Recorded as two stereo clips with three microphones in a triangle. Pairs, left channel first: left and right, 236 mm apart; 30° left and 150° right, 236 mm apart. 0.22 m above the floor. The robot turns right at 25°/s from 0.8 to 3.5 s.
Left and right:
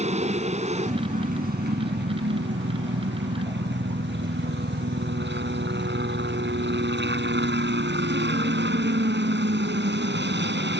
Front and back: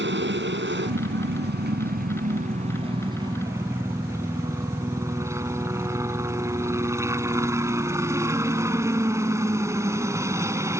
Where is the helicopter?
140° right; by 10.8 s 75° right.